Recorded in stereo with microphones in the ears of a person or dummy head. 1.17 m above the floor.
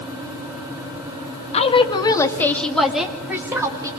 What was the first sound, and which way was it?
A woman speaking, 35° left (ahead or behind).